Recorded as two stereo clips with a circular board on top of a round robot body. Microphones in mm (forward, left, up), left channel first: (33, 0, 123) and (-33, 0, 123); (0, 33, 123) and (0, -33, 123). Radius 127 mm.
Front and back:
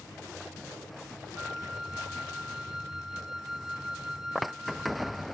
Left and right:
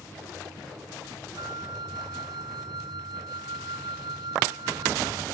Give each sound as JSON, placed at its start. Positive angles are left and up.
{"t": 1.4, "sound": "a flute", "azimuth_deg": -95}